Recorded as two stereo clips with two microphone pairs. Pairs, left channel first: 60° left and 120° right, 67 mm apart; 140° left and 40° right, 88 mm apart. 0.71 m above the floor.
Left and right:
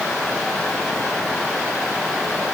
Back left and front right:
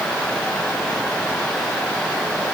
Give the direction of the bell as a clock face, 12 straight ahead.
I don't hear a bell.